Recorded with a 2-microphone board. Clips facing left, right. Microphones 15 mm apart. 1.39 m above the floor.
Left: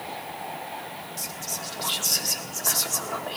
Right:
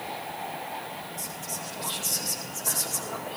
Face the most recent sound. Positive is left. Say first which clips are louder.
# left 2 dB
turn(degrees=85)